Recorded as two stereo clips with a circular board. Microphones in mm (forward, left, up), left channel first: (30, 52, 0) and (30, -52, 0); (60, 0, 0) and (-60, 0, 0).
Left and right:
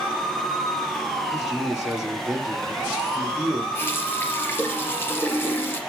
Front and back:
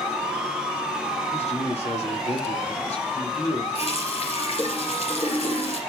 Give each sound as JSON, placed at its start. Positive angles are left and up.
{"t": 1.3, "sound": "a man speaking", "azimuth_deg": -5, "distance_m": 4.5}
{"t": 3.8, "sound": "a running tap", "azimuth_deg": 25, "distance_m": 3.5}